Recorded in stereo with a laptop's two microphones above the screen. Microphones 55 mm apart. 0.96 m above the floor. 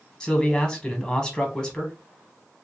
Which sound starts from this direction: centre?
A man speaking, at 0.2 s.